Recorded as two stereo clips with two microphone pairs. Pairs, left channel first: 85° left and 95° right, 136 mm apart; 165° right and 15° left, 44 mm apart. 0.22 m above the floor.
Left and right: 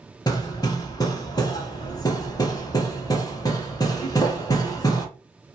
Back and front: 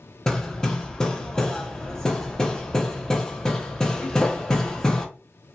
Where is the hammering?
125° left, 0.6 m.